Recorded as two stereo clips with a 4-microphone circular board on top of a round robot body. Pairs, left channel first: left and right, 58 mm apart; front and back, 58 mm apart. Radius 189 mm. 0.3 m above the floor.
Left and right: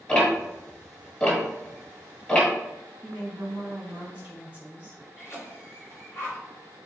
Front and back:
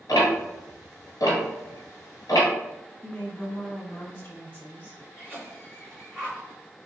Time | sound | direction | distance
0.1 | ticking | 15° left | 1.4 m
3.0 | a woman speaking | 35° right | 1.8 m
5.2 | a cough | 95° left | 1.7 m